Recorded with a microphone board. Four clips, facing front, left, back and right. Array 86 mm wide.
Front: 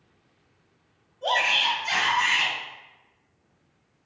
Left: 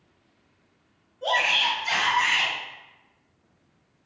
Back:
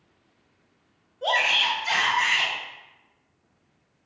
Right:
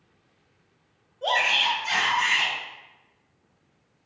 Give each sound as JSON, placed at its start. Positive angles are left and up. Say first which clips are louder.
{"t": 1.2, "sound": "a shout", "louder": "even, even", "azimuth_deg": -170, "distance_m": 1.3}